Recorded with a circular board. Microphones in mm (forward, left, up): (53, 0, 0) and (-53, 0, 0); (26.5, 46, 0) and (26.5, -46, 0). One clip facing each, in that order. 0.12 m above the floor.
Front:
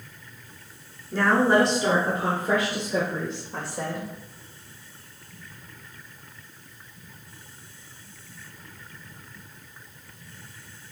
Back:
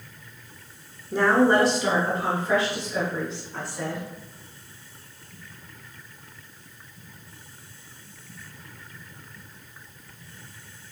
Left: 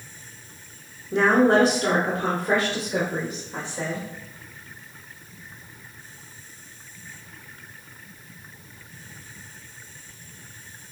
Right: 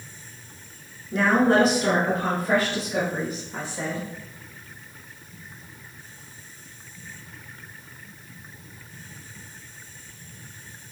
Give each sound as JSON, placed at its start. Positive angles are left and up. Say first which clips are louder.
{"t": 1.1, "sound": "a woman speaking", "louder": "back 1 dB, left 2 dB", "azimuth_deg": 130, "distance_m": 1.2}